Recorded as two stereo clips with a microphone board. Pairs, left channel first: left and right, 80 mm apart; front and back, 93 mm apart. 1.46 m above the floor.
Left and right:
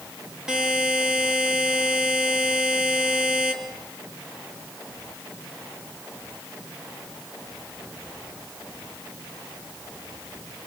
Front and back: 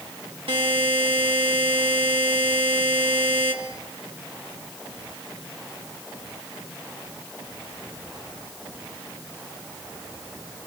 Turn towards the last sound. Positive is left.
turn(degrees=-170)